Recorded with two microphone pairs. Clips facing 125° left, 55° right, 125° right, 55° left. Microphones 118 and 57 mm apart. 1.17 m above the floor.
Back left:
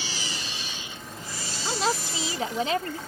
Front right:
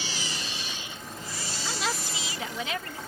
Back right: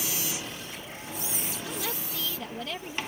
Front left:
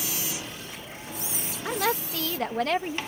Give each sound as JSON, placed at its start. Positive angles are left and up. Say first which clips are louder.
{"t": 1.6, "sound": "a woman speaking", "louder": "back left 6 dB, front left 12 dB", "azimuth_deg": 70}